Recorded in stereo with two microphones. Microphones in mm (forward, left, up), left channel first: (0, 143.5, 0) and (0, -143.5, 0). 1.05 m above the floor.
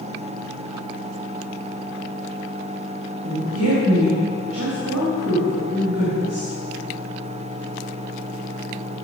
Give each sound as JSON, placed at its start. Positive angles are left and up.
{"t": 3.2, "sound": "a woman speaking", "side_deg": -60, "distance_m": 4.0}